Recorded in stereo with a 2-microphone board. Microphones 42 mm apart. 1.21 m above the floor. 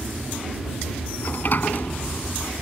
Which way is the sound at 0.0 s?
55° left (ahead or behind).